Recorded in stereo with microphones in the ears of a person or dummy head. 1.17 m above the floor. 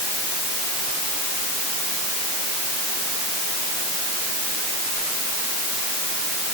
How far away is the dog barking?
No dog barking in this recording.